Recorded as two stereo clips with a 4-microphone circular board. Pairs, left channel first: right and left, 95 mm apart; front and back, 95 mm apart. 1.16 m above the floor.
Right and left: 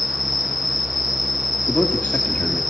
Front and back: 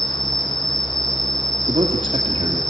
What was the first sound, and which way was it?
An insect, 45° right.